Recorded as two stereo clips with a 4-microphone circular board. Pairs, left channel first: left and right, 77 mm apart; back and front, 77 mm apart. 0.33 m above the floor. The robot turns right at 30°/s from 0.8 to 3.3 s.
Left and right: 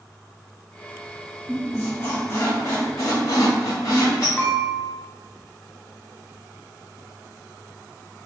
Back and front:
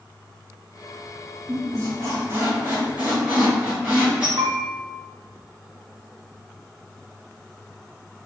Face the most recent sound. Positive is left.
turn(degrees=15)